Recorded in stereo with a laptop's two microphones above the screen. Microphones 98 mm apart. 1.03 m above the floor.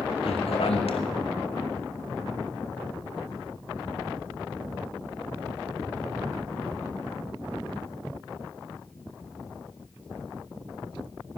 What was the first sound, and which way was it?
A man speaking, 80° left.